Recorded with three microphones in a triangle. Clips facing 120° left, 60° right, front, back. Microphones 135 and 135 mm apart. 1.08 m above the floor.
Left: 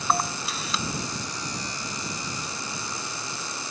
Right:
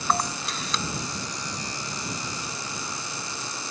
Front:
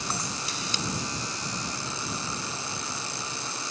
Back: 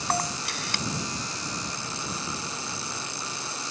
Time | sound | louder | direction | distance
0.1 | a camera shutter | even, back 9 dB | 155° right | ?